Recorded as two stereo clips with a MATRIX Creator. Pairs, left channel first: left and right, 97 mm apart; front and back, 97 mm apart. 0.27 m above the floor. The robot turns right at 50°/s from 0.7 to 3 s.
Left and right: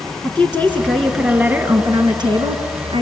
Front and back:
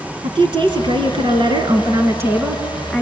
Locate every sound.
0.2 s a woman speaking: 155° left, 2.5 m; by 3.0 s 90° right, 2.5 m